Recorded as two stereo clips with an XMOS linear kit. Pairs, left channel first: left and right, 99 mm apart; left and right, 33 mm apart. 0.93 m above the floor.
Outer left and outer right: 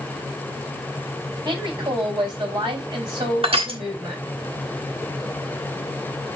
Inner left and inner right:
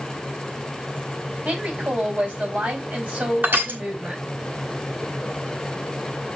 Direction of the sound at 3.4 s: 75° right (ahead or behind).